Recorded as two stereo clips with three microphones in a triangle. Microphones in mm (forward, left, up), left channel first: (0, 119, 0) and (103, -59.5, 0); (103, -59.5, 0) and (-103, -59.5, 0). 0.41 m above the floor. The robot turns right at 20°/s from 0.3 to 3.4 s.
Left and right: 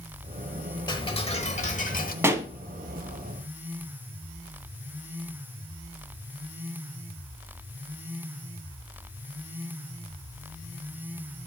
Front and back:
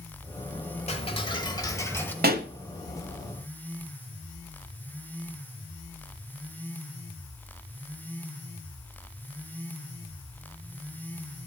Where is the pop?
135° right, 0.9 m; by 2.5 s 130° right, 0.9 m.